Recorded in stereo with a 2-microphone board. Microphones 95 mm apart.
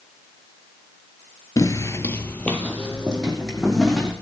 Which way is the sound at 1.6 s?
35° left (ahead or behind).